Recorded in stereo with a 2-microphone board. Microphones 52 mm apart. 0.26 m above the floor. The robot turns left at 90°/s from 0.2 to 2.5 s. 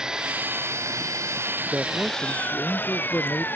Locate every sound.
0.0 s an engine running: 15° right; by 3.6 s 140° left
1.7 s a man speaking: 150° right; by 3.5 s 140° left